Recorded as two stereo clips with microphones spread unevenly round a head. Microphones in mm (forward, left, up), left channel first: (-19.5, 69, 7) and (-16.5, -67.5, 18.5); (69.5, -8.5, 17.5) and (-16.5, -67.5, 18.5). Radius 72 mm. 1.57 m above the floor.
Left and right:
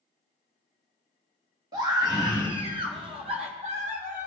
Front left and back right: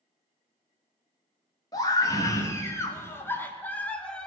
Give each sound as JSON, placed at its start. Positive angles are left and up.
{"t": 1.7, "sound": "a scream", "azimuth_deg": -20, "distance_m": 3.5}